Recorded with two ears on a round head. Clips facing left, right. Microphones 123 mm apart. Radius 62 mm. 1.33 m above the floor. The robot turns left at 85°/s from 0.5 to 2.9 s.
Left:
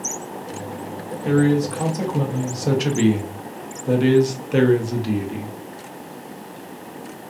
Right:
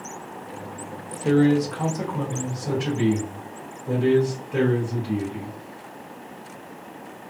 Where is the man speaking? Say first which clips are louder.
Left 1 dB; 140° right, 0.8 m; by 5.5 s 80° left, 0.8 m.